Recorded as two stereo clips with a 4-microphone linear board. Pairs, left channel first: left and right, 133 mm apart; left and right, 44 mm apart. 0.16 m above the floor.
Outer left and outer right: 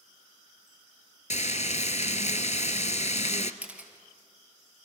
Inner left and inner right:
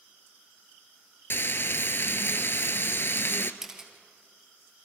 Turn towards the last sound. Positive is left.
turn(degrees=-10)  # may be behind; listen again after turning